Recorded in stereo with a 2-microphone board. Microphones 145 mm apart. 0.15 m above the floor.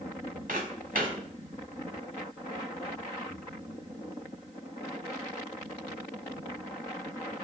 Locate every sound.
0.5 s footsteps: 70° right (ahead or behind), 1.4 m